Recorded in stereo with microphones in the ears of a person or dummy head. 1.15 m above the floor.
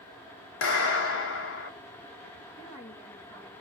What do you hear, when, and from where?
0.6 s a clap: 60° left (ahead or behind), 1.0 m
2.6 s a woman speaking: 15° left (ahead or behind), 1.9 m